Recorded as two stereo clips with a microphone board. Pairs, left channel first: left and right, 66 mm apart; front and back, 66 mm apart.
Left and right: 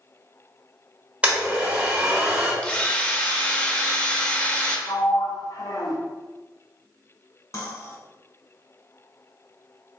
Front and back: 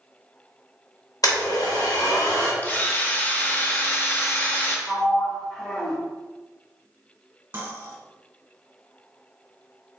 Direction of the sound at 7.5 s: 125° left.